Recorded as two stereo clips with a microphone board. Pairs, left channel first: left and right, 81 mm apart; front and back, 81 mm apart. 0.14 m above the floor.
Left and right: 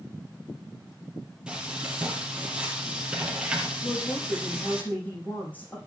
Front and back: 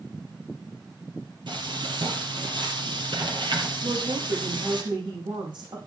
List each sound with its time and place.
1.5 s frying: 170° right, 4.5 m
3.8 s a woman speaking: 155° left, 7 m